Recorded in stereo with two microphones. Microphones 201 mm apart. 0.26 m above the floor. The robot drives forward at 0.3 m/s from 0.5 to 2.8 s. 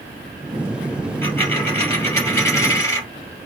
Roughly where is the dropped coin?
Centre.